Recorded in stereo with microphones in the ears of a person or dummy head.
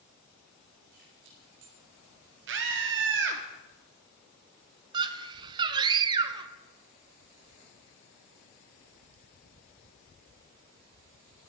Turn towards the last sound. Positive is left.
turn(degrees=-25)  # may be behind; listen again after turning